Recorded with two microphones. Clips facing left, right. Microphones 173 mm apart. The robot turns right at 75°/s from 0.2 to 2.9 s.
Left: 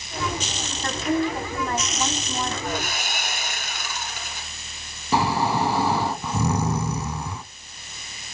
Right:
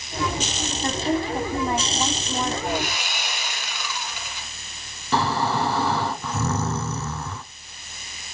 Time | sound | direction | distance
0.8 | a woman speaking | 15° right (ahead or behind) | 1.3 m
2.6 | sawing | 45° left (ahead or behind) | 2.5 m
5.1 | snoring | 15° left (ahead or behind) | 0.9 m